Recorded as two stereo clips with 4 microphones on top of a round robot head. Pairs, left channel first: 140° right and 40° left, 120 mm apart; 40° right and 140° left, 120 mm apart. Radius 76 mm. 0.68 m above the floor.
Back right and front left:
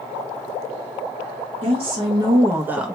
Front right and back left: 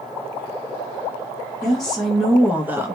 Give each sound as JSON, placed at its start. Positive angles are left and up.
{"t": 1.6, "sound": "a woman speaking", "azimuth_deg": 45, "distance_m": 1.1}